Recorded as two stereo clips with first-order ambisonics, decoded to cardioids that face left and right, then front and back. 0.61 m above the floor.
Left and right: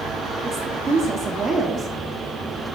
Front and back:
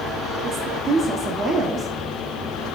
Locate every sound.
0.4 s a woman speaking: 135° right, 0.9 m